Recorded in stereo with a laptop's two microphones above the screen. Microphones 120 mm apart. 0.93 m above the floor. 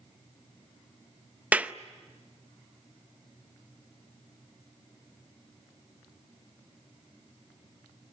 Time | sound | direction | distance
1.5 | a clap | 10° right (ahead or behind) | 0.6 m